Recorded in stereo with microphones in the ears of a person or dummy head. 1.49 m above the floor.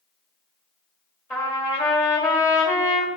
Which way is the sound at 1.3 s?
20° left (ahead or behind).